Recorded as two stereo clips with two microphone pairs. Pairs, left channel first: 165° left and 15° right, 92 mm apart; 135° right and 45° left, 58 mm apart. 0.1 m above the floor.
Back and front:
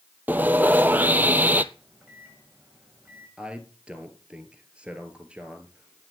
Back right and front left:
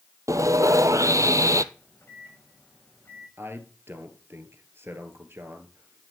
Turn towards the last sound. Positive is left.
turn(degrees=60)